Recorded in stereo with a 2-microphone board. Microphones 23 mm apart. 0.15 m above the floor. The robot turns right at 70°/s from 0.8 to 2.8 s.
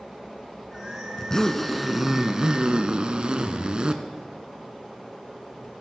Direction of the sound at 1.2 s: 140° left.